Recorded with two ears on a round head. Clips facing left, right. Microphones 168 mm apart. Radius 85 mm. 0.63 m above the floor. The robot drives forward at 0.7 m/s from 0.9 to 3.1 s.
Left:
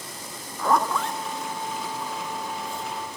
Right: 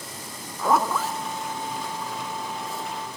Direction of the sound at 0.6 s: 5° right (ahead or behind).